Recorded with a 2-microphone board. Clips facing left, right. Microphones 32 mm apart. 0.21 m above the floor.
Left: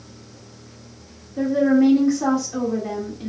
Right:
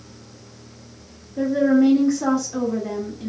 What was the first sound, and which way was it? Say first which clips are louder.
A woman speaking: even; 40° left (ahead or behind).